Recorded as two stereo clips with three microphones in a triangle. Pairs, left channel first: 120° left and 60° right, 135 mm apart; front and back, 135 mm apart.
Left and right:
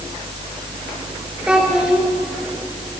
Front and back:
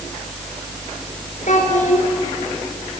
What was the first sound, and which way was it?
A child speaking, 25° left.